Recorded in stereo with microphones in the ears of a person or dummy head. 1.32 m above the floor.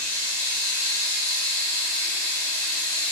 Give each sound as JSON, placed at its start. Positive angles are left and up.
{"t": 0.0, "sound": "running water", "side_deg": 25, "distance_m": 1.1}